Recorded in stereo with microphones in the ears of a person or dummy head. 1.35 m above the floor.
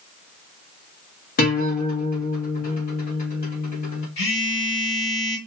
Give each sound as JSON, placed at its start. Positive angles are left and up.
{"t": 1.4, "sound": "a guitar", "side_deg": 40, "distance_m": 1.5}
{"t": 4.2, "sound": "a phone buzzing", "side_deg": 65, "distance_m": 1.6}